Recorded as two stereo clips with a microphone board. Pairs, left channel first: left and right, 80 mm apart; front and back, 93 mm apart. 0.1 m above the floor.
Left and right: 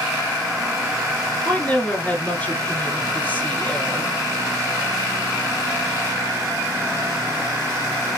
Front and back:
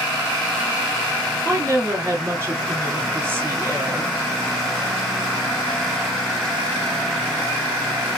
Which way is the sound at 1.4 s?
145° left.